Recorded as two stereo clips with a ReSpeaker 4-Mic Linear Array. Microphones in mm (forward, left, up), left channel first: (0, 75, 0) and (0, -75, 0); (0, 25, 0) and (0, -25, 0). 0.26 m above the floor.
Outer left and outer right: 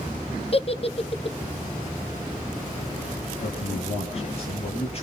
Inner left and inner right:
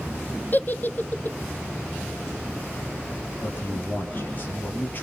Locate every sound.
0.5 s a giggle: 40° left (ahead or behind), 1.0 m
3.4 s a man speaking: 45° left (ahead or behind), 7 m